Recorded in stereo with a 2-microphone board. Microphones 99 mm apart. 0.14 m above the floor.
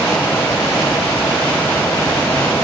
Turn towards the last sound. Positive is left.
No sound to turn to.